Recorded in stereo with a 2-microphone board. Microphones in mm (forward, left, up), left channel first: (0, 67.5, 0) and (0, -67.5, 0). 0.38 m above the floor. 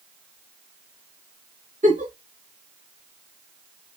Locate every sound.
1.8 s a giggle: 65° right (ahead or behind), 1.6 m